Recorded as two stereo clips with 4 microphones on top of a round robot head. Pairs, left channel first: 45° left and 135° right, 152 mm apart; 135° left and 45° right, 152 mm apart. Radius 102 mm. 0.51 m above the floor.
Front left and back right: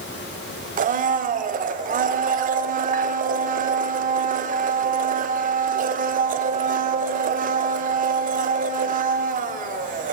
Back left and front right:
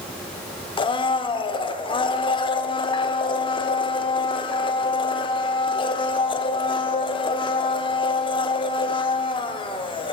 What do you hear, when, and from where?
0.8 s a blender: 165° right, 0.6 m